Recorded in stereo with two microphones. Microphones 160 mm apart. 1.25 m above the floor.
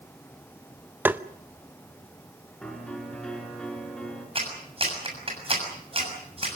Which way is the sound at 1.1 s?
10° right (ahead or behind).